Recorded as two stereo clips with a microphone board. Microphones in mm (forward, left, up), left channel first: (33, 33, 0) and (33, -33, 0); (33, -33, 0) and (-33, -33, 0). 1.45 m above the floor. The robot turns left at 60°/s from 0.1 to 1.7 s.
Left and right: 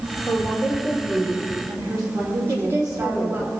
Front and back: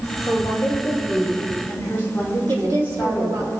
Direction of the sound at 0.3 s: 25° left.